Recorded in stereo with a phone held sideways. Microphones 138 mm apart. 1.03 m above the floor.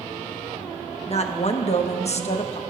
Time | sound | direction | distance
1.1 | a woman speaking | 50° left (ahead or behind) | 1.0 m